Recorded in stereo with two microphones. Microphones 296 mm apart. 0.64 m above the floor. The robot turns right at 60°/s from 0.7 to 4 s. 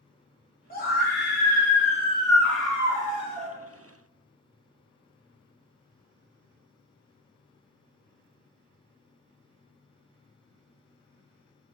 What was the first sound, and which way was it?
A scream, 65° left.